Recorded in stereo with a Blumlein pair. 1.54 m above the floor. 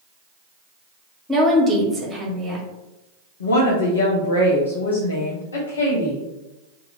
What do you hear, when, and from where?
1.3 s a woman speaking: 15° right, 1.4 m
3.4 s a woman speaking: 70° left, 0.7 m